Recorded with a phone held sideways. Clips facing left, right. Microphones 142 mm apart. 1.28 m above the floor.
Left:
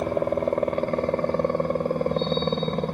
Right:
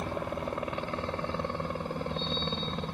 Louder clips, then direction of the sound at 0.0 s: Left 11 dB; 55° left (ahead or behind).